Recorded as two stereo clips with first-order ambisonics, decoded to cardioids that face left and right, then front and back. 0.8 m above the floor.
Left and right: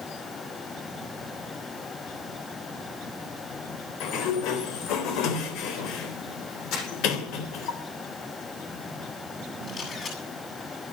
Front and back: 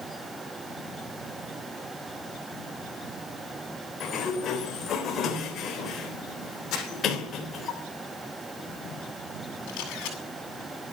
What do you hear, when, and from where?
4.0 s a sliding door: 60° left, 3.5 m
6.7 s crumpling: 50° left, 7.5 m
9.7 s a camera shutter: 25° left, 7.5 m